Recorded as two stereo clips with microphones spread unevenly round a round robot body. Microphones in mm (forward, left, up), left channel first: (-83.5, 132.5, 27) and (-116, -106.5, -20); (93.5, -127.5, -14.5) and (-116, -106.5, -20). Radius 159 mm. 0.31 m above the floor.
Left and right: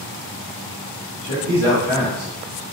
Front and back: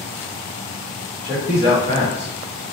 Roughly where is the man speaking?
Behind.